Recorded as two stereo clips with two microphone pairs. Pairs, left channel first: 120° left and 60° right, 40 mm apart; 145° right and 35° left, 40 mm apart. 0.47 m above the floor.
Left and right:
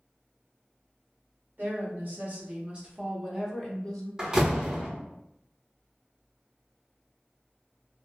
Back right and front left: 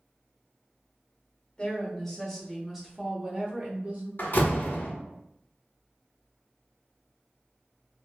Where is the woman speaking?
75° right, 1.1 m; by 4.1 s 40° left, 0.9 m.